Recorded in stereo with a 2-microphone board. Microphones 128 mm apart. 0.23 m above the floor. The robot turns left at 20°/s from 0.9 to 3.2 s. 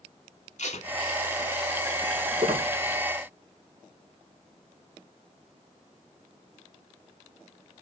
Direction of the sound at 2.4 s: 50° right (ahead or behind).